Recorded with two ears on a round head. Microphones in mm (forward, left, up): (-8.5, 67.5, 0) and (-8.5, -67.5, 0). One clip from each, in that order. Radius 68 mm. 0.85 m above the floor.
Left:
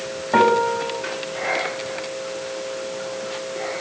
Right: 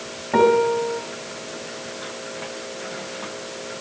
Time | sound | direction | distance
0.3 | a piano | 35° left (ahead or behind) | 5 m